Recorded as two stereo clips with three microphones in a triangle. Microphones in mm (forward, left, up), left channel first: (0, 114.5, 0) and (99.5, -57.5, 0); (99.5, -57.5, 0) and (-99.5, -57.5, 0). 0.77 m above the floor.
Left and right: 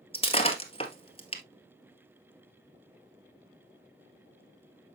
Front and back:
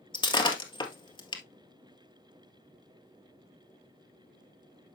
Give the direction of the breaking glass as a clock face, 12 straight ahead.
10 o'clock.